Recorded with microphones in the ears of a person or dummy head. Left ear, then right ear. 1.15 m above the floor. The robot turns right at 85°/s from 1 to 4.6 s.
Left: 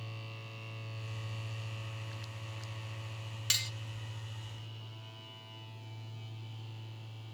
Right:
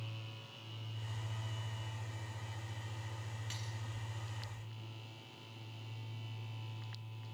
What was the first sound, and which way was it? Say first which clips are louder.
Cutlery clinking: left 17 dB; 40° left (ahead or behind).